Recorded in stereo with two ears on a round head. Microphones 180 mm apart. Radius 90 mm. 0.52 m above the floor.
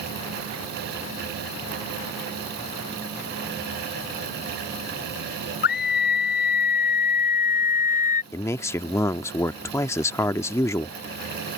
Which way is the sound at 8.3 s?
15° left (ahead or behind).